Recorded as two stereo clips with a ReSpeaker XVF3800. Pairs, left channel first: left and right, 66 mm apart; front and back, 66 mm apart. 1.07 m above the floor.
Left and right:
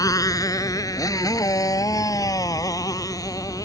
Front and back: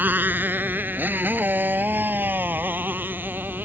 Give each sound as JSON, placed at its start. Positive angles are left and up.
{"t": 0.0, "sound": "a motorcycle", "azimuth_deg": 115}